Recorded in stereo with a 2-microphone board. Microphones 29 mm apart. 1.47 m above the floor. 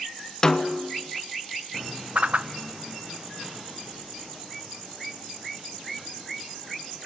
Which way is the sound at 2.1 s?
45° right (ahead or behind).